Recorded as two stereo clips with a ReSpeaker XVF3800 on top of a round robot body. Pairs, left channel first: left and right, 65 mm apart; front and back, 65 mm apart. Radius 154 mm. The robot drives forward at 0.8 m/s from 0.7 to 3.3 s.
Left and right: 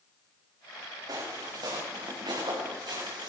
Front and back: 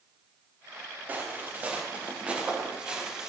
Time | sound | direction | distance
1.1 | footsteps | 120° right | 4.5 m